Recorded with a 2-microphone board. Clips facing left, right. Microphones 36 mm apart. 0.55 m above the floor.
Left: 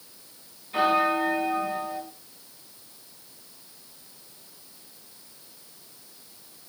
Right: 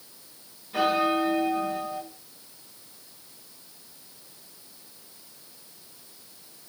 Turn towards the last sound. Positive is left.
turn(degrees=25)  # may be behind; listen again after turning